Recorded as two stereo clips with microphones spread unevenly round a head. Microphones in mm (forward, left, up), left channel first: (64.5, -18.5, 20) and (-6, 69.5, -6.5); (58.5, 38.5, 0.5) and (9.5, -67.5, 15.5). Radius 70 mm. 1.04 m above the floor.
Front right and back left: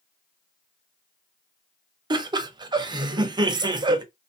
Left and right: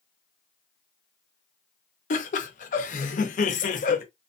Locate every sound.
2.1 s laughter: 85° left, 0.7 m